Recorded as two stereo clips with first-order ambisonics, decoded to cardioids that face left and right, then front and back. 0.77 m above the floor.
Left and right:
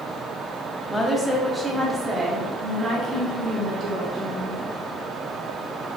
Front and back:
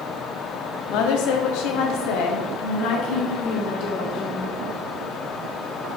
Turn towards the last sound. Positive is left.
turn(degrees=-30)